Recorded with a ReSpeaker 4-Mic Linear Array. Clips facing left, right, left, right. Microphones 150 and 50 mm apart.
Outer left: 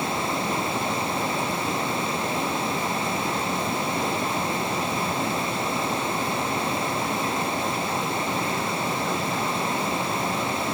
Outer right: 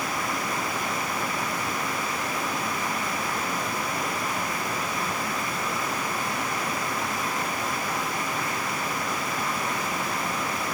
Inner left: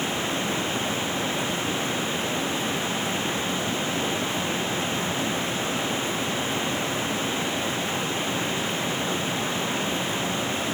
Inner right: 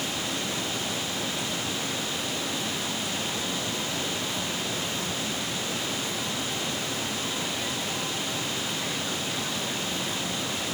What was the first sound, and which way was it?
Only background noise.